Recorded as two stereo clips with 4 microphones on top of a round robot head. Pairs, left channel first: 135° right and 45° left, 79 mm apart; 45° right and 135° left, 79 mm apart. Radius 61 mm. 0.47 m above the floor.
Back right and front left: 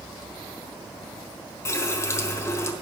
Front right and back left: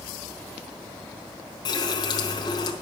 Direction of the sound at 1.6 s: 80° right.